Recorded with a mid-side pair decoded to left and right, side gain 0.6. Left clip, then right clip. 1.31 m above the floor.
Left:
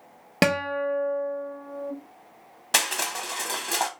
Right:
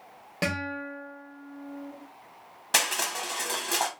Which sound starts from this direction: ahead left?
A guitar, at 0.4 s.